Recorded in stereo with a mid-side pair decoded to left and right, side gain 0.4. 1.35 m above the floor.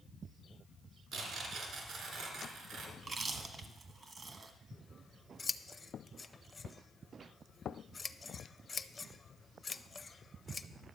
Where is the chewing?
50° right, 1.2 m.